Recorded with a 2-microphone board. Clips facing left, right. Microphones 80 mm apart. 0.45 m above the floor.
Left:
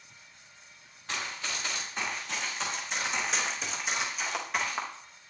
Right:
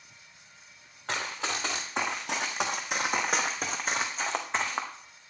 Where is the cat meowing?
I don't hear a cat meowing.